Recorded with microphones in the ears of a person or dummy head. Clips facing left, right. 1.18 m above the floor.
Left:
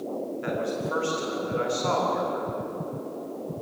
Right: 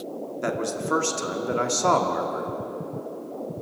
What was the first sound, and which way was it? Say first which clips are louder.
A man speaking: right 3 dB; 60° right (ahead or behind).